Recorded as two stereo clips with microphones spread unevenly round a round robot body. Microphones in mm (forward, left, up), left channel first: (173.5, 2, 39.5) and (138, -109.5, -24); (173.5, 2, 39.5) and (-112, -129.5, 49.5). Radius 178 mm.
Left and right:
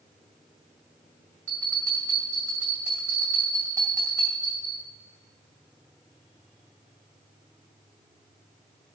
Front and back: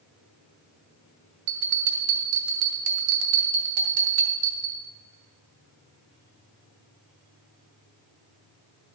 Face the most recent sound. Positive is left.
turn(degrees=165)